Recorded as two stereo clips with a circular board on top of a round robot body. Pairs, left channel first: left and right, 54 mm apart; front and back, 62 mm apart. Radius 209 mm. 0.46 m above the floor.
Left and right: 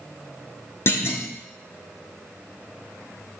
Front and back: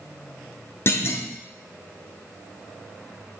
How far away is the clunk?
About 0.9 m.